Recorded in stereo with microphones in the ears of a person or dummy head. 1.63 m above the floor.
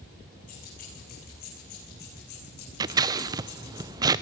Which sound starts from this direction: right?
Scissors, at 2.8 s.